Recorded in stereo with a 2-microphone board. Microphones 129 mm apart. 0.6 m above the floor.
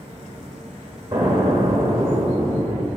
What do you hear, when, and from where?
1.1 s an explosion: 35° right (ahead or behind), 1.5 m